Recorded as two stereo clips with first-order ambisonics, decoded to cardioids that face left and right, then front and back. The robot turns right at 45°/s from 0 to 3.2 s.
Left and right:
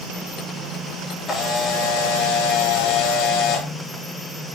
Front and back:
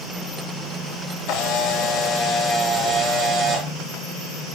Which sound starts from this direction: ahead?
A camera shutter, at 1.3 s.